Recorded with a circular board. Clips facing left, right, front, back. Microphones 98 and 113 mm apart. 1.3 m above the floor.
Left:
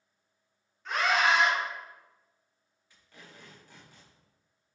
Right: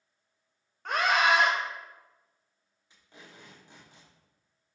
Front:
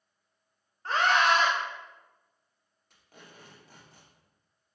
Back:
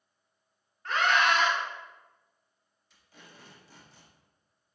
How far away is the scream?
About 0.8 m.